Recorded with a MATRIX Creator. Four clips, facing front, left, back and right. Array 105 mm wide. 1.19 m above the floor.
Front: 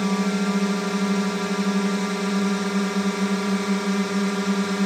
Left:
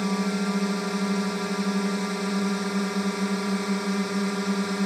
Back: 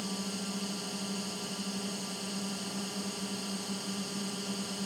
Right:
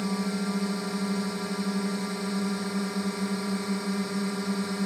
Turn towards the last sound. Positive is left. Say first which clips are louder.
# left 3 dB, front 15 dB
turn(degrees=20)